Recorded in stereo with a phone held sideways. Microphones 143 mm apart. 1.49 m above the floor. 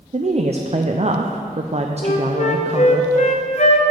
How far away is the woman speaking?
About 0.5 m.